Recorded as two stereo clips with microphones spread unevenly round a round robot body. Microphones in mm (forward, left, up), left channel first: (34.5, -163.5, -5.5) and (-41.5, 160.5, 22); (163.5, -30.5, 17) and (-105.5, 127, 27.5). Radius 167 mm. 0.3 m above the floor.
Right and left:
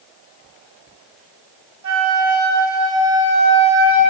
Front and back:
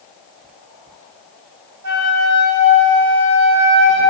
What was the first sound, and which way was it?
A flute, 145° left.